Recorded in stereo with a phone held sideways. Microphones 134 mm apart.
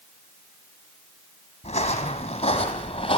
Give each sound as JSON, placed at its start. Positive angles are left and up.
{"t": 1.6, "sound": "footsteps", "side_deg": 60, "distance_m": 3.5}